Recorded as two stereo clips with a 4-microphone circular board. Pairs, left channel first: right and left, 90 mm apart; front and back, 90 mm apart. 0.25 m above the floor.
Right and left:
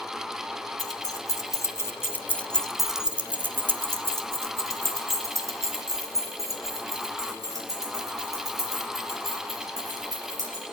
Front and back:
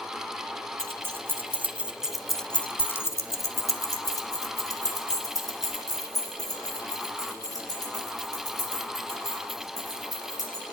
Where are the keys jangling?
125° right, 1.8 m; by 10.6 s 45° left, 7.5 m.